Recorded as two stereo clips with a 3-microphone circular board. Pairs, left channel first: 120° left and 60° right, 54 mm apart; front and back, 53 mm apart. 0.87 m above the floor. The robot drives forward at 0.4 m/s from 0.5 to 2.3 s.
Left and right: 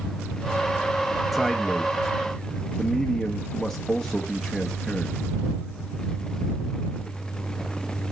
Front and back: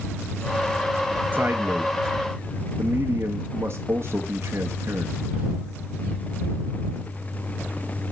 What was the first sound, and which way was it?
A man speaking, 150° right.